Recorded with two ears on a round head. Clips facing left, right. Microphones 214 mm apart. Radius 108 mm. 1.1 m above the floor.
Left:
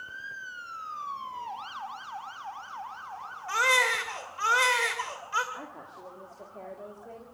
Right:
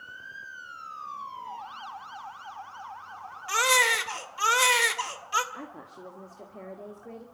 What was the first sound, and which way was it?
A baby crying, 50° right (ahead or behind).